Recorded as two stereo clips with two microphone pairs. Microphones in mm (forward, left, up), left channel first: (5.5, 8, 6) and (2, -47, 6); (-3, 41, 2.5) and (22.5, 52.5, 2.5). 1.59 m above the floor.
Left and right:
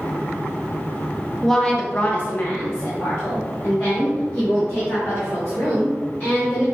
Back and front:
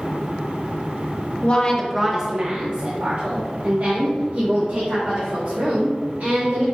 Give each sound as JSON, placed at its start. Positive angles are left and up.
{"t": 1.4, "sound": "a woman speaking", "azimuth_deg": 170, "distance_m": 0.7}